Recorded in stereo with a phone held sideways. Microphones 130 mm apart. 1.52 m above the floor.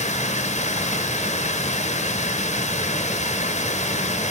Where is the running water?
60° left (ahead or behind), 0.8 m.